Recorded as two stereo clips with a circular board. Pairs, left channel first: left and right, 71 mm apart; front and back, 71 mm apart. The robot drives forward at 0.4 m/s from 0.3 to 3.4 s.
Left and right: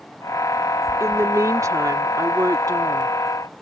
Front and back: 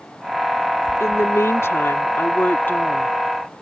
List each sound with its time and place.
1.0 s a woman speaking: 45° right; by 3.1 s 65° right